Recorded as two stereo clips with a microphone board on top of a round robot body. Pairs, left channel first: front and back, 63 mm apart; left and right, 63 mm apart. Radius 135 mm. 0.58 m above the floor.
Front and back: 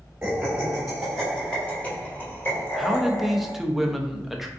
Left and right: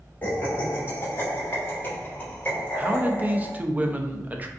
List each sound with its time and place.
0.2 s laughter: 120° left, 1.3 m; by 3.5 s 25° left, 1.8 m
2.8 s a man speaking: 95° right, 0.6 m